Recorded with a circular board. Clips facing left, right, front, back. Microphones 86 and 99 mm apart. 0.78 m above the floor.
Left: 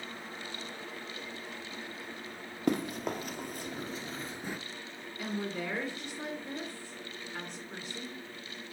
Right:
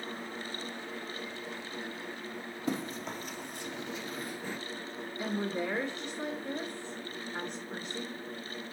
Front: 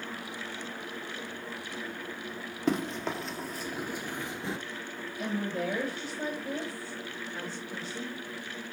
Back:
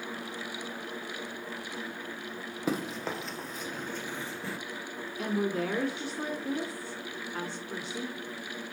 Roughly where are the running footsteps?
Left.